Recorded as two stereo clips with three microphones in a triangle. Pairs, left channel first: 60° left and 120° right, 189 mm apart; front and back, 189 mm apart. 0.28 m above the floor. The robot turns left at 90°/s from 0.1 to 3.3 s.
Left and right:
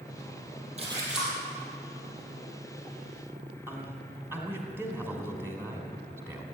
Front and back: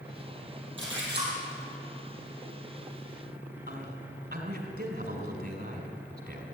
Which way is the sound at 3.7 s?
165° left.